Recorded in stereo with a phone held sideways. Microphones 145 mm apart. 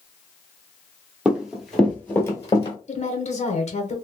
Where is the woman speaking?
50° left (ahead or behind), 0.9 m.